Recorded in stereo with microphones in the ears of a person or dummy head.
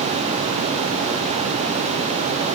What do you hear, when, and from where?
Only background noise.